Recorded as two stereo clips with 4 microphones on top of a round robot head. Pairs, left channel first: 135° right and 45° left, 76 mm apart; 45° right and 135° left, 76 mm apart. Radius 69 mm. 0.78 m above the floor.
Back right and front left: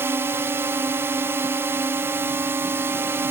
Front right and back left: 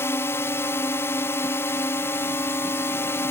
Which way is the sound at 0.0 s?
Straight ahead.